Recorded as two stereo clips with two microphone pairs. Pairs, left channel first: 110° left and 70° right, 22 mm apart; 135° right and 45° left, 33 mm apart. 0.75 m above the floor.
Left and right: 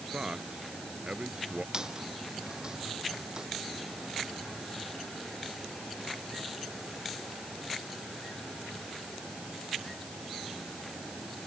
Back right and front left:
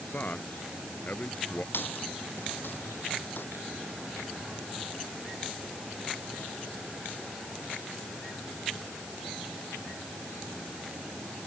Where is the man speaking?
100° right; by 1.6 s 95° right.